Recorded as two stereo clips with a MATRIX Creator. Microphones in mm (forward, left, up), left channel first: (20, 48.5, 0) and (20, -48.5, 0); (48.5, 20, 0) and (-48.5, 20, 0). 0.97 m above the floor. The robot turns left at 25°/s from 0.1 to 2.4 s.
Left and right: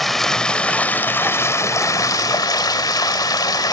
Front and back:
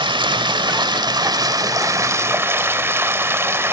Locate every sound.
0.0 s running water: straight behind, 1.0 m; by 3.7 s 120° left, 1.0 m